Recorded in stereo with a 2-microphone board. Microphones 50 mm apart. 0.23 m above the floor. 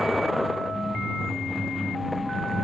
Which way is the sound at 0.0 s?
Centre (ahead or behind).